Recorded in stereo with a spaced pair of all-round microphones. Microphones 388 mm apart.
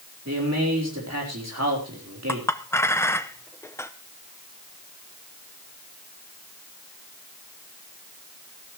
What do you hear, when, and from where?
0.2 s a man speaking: 40° right (ahead or behind), 4 m
2.3 s a clink: 5° left (ahead or behind), 0.7 m